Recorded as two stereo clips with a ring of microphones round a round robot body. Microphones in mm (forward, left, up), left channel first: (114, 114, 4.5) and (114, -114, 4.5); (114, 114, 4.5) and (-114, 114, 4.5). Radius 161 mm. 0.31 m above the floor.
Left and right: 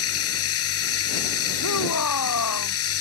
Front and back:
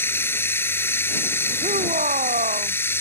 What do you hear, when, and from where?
0.0 s running water: 80° left
1.6 s a shout: 125° left